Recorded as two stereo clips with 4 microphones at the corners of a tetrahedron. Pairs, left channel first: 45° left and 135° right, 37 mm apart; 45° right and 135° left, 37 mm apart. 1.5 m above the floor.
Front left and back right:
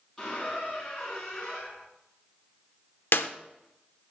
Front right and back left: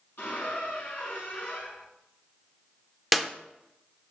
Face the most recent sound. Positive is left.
turn(degrees=45)